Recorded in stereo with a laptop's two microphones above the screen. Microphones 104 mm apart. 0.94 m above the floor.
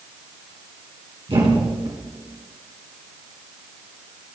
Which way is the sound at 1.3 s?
60° right (ahead or behind).